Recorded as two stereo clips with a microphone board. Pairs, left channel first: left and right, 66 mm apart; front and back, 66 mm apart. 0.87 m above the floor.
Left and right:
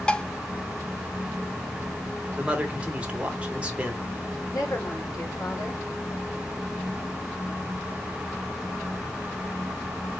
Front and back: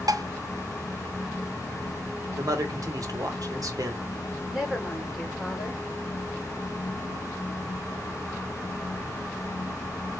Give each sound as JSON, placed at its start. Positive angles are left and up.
{"t": 0.1, "sound": "dishes clattering", "azimuth_deg": 165, "distance_m": 0.6}
{"t": 2.4, "sound": "a man speaking", "azimuth_deg": -160, "distance_m": 1.8}
{"t": 4.5, "sound": "a woman speaking", "azimuth_deg": 105, "distance_m": 3.5}